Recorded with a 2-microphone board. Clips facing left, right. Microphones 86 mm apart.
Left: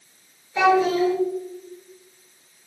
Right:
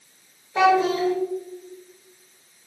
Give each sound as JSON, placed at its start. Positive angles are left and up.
{"t": 0.6, "sound": "a child speaking", "side_deg": -45, "distance_m": 1.7}